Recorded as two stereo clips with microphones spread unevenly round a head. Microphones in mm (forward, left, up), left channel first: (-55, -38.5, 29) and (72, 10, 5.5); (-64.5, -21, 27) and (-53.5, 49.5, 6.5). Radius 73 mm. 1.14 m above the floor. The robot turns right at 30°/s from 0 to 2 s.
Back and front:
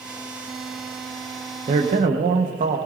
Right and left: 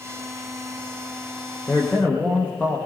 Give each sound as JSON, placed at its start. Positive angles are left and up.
{"t": 1.7, "sound": "a man speaking", "azimuth_deg": -25, "distance_m": 1.3}